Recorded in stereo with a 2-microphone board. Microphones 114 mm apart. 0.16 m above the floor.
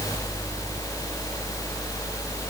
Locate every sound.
Only background noise.